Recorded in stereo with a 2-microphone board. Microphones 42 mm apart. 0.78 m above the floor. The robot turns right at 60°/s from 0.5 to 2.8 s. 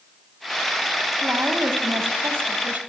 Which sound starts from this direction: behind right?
A woman speaking, at 1.2 s.